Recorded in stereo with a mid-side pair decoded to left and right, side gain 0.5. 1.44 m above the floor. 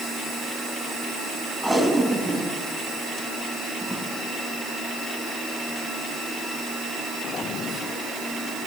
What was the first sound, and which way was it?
Tape being pulled, straight ahead.